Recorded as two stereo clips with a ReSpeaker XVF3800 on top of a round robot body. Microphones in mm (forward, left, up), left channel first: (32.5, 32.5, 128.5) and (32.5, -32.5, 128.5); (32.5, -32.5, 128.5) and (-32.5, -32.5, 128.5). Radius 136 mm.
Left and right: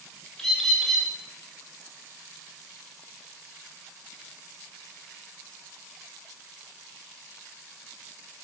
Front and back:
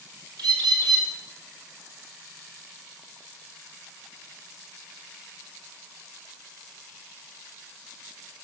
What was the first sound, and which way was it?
A bird, 175° left.